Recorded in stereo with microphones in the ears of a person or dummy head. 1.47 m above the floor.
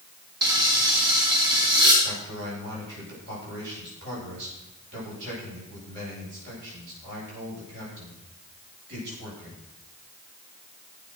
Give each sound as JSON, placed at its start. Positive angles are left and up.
{"t": 0.4, "sound": "frying", "side_deg": -20, "distance_m": 4.0}
{"t": 2.0, "sound": "a man speaking", "side_deg": -60, "distance_m": 10.0}